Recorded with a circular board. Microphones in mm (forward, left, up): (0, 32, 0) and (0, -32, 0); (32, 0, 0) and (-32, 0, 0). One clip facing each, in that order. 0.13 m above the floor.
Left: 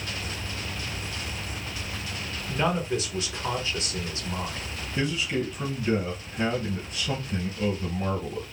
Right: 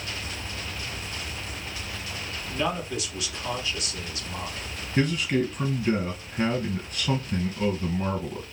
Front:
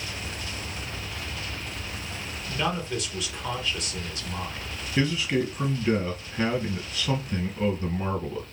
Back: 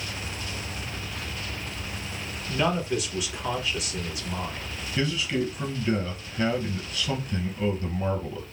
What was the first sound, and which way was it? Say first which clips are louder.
A man speaking: left 3 dB, back 3 dB; 105° left.